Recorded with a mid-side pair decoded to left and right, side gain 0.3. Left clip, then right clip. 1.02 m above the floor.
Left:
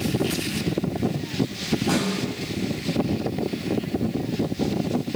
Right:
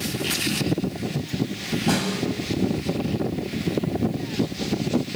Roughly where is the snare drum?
Ahead right.